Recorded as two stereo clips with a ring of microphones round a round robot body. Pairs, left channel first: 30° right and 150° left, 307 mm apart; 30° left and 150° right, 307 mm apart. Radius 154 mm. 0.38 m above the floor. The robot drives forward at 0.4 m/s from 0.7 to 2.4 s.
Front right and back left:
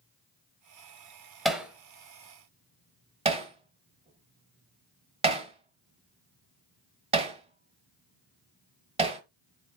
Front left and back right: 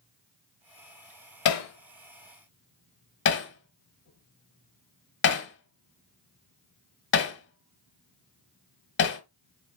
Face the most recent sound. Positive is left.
turn(degrees=80)